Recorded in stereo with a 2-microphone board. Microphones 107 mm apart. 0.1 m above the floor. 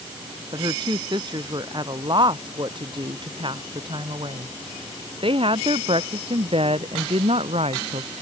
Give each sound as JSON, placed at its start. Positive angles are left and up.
{"t": 0.5, "sound": "a woman speaking", "side_deg": -45}